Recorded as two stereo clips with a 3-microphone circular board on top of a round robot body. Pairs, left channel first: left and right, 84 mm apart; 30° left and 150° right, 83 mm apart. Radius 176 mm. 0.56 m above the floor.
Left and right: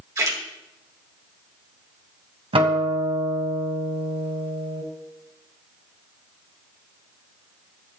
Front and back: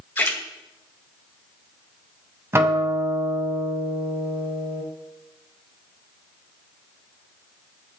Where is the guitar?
90° right, 2.0 m.